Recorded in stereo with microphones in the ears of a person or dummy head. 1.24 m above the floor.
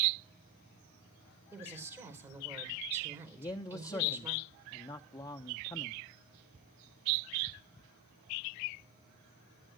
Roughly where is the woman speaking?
Centre.